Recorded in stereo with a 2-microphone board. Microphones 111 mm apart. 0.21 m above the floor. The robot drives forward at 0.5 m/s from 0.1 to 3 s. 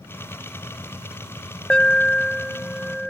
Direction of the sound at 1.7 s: 10° left (ahead or behind).